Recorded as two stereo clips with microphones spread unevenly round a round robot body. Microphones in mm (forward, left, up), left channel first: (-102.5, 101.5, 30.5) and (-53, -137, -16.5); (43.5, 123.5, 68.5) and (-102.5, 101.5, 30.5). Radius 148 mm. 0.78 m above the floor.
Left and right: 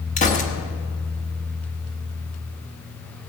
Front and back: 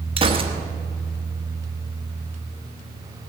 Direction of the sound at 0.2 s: 165° left.